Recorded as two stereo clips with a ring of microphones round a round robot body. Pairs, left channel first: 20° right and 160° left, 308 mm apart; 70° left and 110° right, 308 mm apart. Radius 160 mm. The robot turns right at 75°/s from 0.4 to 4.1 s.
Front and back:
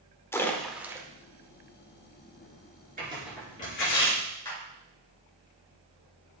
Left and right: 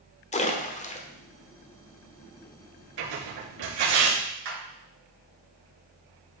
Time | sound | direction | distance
0.3 | a splash | 50° left | 1.1 m
3.0 | tearing paper | 140° right | 4.5 m
4.5 | a clap | 100° right | 5.5 m